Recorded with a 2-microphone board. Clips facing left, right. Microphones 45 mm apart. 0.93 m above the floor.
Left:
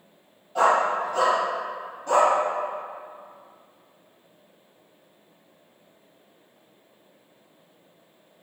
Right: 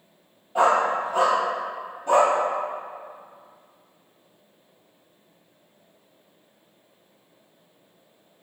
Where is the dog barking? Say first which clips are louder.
Right 1 dB; 20° right (ahead or behind), 1.8 m.